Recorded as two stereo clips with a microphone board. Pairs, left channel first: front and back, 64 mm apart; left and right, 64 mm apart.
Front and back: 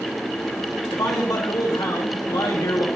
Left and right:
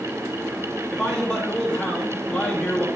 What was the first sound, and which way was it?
A man speaking, 15° left.